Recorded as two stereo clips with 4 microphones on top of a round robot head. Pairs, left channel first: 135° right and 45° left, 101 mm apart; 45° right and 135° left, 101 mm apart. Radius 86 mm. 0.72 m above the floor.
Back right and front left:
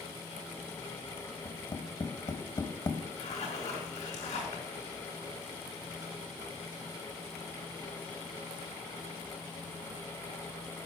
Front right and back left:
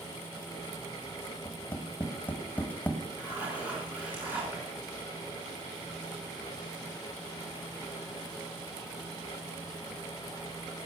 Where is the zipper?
150° right, 5.5 m.